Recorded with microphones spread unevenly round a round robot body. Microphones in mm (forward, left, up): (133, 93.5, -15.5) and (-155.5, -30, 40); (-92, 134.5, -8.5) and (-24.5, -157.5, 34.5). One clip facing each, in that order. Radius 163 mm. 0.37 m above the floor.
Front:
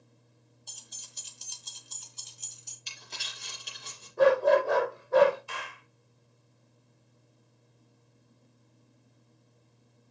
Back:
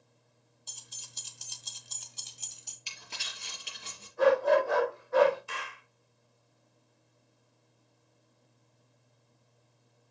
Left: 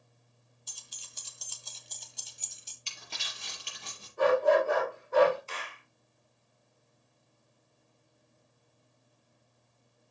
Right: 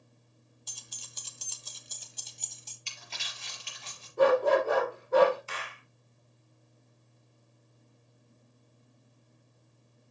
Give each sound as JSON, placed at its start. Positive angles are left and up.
{"t": 0.7, "sound": "keys jangling", "azimuth_deg": -90, "distance_m": 1.4}
{"t": 2.9, "sound": "crumpling", "azimuth_deg": 145, "distance_m": 5.0}
{"t": 4.2, "sound": "a dog barking", "azimuth_deg": -25, "distance_m": 4.0}
{"t": 5.5, "sound": "a clap", "azimuth_deg": -90, "distance_m": 3.5}